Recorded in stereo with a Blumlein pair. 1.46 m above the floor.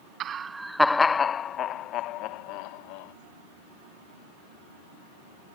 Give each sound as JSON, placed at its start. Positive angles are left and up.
{"t": 0.2, "sound": "laughter", "azimuth_deg": -30}